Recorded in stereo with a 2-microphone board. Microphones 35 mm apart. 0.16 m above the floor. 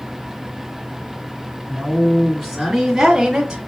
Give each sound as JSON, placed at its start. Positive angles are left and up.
{"t": 1.7, "sound": "a woman speaking", "side_deg": 10, "distance_m": 1.8}